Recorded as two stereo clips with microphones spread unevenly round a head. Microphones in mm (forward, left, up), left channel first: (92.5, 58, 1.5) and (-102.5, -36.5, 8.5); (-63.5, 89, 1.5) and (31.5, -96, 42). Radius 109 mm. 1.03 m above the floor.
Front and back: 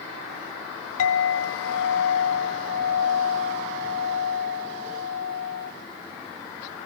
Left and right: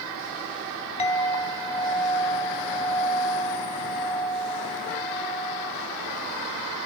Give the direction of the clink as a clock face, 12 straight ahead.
10 o'clock.